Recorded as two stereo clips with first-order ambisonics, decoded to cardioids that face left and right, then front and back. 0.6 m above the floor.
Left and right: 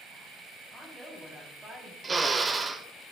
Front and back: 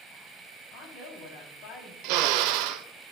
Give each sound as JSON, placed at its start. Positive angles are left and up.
{"t": 0.7, "sound": "a woman speaking", "azimuth_deg": -10, "distance_m": 4.0}
{"t": 2.0, "sound": "a drill", "azimuth_deg": -165, "distance_m": 0.6}